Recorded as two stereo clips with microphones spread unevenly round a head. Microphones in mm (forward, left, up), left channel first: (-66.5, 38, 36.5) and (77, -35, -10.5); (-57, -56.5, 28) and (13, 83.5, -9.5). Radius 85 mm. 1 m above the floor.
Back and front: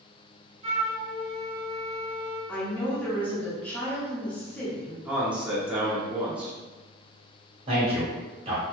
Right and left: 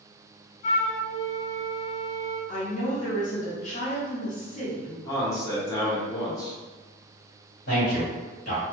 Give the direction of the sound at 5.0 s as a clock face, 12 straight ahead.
2 o'clock.